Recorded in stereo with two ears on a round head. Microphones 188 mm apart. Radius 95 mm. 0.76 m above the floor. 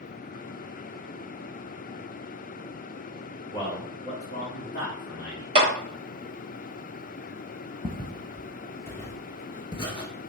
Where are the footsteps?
5° left (ahead or behind), 1.4 m; by 10.3 s 25° left (ahead or behind), 0.8 m.